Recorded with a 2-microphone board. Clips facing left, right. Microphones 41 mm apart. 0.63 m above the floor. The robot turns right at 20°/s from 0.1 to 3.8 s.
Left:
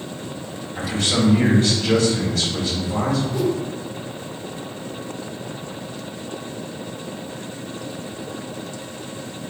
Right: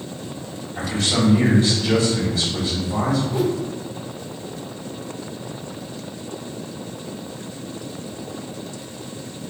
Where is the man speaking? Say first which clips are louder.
Even; 50° left, 2.0 m; by 3.2 s 100° left, 2.0 m.